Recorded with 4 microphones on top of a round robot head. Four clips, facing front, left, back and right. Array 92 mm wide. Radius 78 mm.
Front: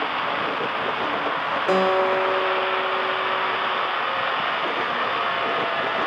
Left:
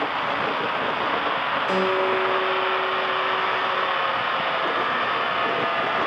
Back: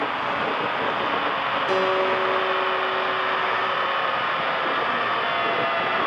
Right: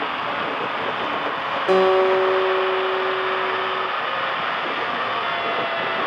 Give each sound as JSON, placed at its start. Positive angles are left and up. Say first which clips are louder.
{"t": 1.7, "sound": "a guitar", "louder": "right 8 dB, front 3 dB", "azimuth_deg": -55, "distance_m": 1.1}